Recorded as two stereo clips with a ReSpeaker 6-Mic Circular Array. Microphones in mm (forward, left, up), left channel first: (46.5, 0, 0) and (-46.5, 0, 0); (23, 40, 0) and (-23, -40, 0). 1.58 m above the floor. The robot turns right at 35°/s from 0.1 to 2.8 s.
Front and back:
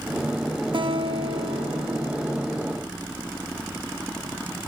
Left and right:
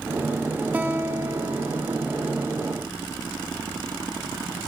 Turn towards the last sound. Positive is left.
turn(degrees=-115)